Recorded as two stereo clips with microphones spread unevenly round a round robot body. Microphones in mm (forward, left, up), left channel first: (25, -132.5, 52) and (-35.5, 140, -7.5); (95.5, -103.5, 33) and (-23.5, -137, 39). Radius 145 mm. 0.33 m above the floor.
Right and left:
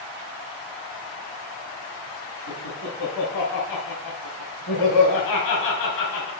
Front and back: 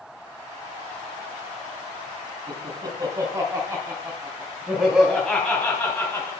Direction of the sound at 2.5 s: 115° right.